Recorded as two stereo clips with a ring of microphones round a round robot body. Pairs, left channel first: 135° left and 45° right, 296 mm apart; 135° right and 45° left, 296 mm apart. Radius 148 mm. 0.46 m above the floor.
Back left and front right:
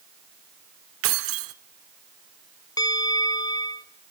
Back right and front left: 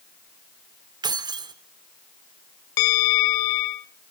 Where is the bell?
145° right, 0.7 m.